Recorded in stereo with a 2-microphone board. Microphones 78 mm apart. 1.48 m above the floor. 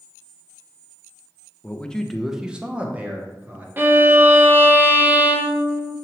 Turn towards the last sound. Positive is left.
turn(degrees=-25)  # may be behind; listen again after turning